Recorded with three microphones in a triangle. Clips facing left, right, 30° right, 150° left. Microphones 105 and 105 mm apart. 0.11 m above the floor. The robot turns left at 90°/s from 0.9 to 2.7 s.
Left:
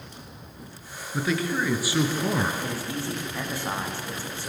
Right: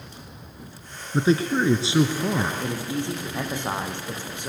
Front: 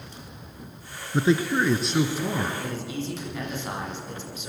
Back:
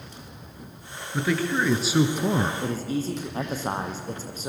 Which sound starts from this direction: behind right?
A man speaking, at 2.6 s.